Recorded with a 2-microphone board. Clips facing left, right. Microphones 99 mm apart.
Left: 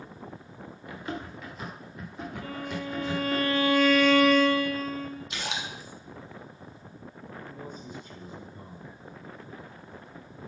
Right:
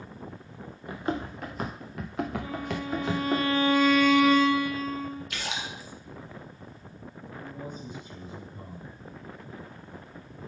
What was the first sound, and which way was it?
Running footsteps, 35° right (ahead or behind).